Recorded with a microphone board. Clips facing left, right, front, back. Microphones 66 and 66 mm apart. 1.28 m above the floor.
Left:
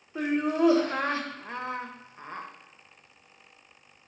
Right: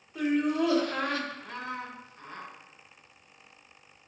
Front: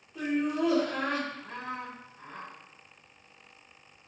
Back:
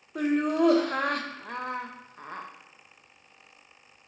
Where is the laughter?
150° left, 0.6 m.